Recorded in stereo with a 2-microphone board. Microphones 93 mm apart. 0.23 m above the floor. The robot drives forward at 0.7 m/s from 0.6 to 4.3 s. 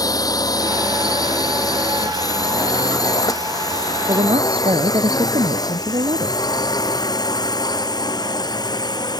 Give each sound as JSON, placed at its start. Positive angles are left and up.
{"t": 0.0, "sound": "a drone", "side_deg": 45}
{"t": 4.1, "sound": "a woman speaking", "side_deg": -85}